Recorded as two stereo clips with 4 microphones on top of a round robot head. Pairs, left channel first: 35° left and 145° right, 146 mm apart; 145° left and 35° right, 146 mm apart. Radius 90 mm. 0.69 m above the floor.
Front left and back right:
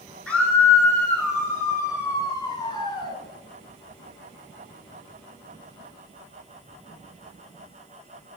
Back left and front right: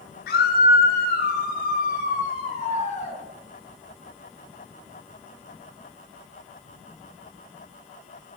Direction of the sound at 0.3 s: 120° left.